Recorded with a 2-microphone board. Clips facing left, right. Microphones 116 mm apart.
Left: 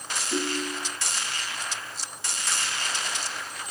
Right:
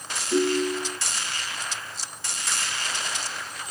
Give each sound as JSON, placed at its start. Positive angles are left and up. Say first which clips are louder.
{"t": 0.3, "sound": "a ringtone", "louder": "right 7 dB", "side_deg": 5, "distance_m": 6.5}